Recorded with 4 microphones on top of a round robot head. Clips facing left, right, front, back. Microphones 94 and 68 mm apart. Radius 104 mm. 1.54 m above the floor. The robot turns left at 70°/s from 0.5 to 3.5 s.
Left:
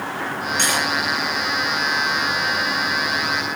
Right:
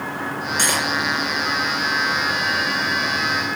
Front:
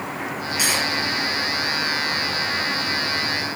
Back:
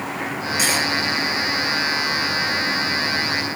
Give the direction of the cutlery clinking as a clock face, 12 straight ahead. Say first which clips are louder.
Even, back 2 dB; 4 o'clock.